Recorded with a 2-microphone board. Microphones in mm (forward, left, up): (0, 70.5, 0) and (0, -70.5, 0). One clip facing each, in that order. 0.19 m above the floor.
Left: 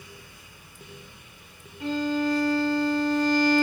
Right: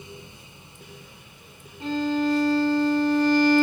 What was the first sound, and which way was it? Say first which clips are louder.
A violin: right 2 dB; 25° right (ahead or behind).